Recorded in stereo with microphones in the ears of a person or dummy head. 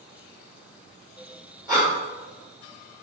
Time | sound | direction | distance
1.7 | breathing | 25° right (ahead or behind) | 3.5 m